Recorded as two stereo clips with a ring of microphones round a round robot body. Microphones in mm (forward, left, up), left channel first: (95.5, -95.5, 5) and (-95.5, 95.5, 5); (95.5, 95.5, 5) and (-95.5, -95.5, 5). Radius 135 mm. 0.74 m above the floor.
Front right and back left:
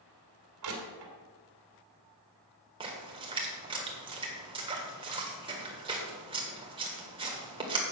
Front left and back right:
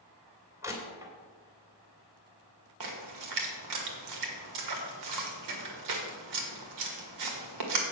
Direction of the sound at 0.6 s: 145° left.